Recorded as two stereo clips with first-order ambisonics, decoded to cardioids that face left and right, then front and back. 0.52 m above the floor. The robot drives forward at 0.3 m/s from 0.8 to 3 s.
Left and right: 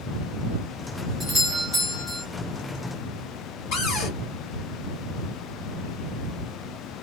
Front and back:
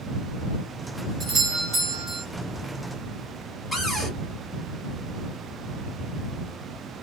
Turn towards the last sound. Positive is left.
turn(degrees=90)